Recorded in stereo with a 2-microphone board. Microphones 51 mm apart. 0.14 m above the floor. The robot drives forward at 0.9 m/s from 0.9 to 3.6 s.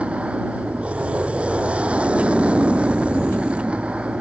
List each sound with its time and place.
0.0 s an aircraft: 25° right (ahead or behind)